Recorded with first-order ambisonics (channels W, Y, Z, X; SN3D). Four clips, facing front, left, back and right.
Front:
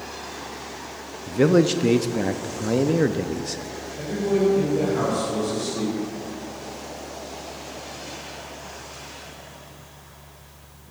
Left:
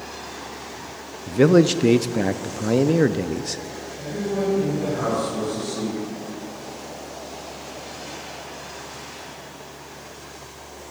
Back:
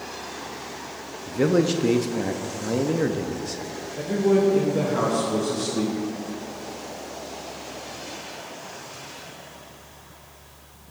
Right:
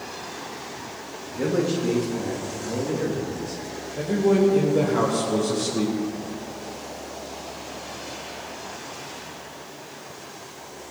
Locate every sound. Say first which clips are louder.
1.3 s a man speaking: left 9 dB, front 3 dB; 70° left, 0.5 m
4.0 s a man speaking: right 7 dB, back 2 dB; 115° right, 3 m